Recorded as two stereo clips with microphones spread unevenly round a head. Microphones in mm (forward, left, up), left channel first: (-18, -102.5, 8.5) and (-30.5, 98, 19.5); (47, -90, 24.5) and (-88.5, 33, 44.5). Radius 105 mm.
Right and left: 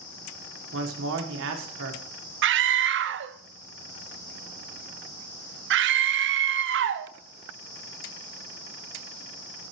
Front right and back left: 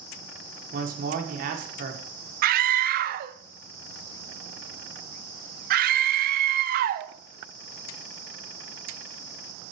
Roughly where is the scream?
Left.